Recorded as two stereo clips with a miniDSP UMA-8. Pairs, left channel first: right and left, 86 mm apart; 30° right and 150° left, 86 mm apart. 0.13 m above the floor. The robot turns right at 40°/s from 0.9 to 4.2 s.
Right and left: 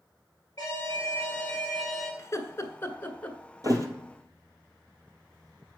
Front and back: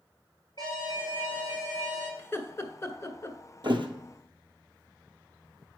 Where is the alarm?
45° right, 4 m; by 2.1 s straight ahead, 4 m.